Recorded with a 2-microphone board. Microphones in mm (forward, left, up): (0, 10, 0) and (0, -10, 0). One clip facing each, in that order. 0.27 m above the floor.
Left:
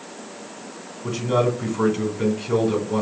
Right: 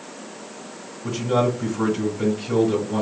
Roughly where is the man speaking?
Centre.